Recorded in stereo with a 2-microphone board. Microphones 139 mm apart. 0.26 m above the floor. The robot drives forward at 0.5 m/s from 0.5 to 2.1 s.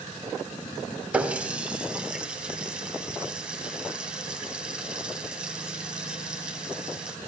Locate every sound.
1.1 s a running tap: 10° right (ahead or behind), 0.9 m; by 7.2 s 5° right (ahead or behind), 1.3 m